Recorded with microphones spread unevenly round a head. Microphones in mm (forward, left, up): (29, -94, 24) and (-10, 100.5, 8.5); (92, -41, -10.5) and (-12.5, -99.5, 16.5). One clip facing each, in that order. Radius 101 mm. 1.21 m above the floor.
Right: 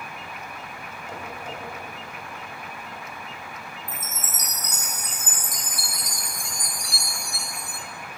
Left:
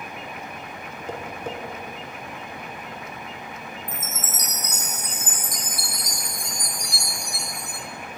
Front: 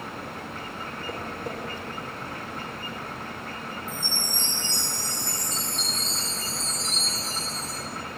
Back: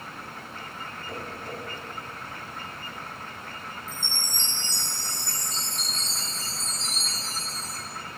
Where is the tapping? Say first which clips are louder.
Left 5 dB, front 3 dB; 95° left, 1.1 m.